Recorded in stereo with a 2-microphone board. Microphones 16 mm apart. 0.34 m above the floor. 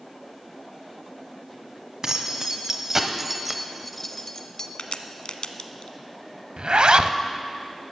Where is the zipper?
70° right (ahead or behind), 0.5 m.